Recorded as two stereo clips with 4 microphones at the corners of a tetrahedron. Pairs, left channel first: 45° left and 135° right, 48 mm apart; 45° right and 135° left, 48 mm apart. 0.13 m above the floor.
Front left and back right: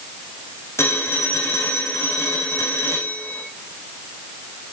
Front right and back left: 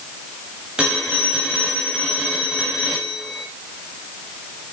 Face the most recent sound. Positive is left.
turn(degrees=65)